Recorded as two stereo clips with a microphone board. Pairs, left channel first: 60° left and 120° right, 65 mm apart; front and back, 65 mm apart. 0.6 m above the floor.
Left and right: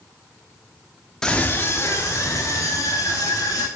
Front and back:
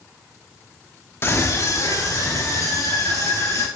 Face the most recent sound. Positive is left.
turn(degrees=35)